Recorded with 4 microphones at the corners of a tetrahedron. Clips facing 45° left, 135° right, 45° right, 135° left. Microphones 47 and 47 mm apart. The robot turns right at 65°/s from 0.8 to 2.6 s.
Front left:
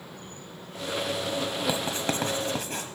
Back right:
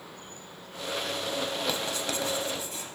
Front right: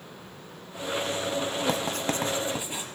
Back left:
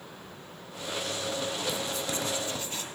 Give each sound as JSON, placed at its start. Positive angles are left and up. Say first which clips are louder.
{"t": 1.7, "sound": "writing", "louder": "front left 3 dB, front right 4 dB", "azimuth_deg": -35, "distance_m": 0.9}